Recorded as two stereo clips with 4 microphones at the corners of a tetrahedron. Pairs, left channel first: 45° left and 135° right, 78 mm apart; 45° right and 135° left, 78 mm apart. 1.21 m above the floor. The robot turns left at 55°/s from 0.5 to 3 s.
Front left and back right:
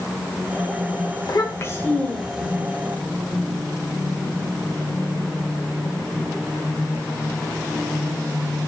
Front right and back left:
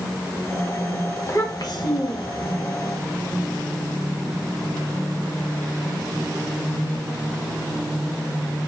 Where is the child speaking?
10° left, 0.9 m; by 2.5 s 60° right, 0.9 m.